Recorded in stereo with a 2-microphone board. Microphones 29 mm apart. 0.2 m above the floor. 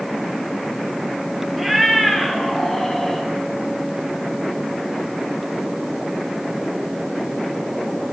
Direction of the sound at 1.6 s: 5° right (ahead or behind).